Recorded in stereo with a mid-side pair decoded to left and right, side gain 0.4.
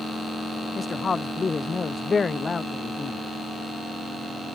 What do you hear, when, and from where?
0.8 s a woman speaking: 30° left